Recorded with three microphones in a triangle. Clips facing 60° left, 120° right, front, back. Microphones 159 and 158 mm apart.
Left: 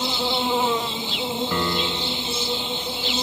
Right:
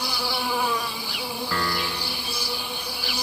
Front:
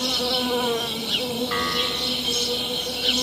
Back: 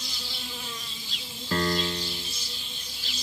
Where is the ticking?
No ticking in this recording.